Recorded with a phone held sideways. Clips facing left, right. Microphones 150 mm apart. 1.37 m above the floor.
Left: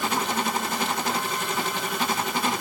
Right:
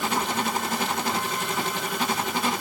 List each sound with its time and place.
Only background noise.